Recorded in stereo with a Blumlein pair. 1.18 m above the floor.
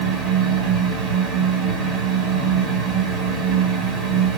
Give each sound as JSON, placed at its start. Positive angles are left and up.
{"t": 0.0, "sound": "a fan", "azimuth_deg": -20, "distance_m": 1.9}